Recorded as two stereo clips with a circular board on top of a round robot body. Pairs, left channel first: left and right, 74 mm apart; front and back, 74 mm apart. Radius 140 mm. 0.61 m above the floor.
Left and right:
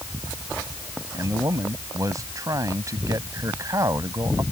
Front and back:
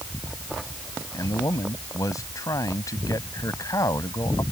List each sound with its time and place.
1.1 s a man speaking: 45° right